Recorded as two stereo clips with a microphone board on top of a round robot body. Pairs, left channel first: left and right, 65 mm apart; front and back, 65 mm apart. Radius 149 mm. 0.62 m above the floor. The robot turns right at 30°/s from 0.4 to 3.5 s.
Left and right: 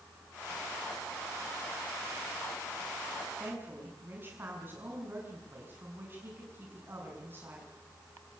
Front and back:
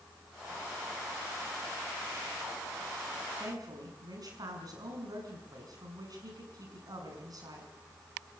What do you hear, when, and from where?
3.4 s a woman speaking: 155° right, 6.5 m; by 7.7 s 150° right, 6.5 m